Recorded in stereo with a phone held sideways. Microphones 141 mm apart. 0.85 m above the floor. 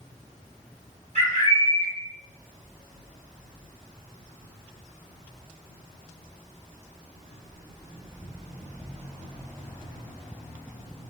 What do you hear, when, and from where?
1.1 s a bird: 65° right (ahead or behind), 1.7 m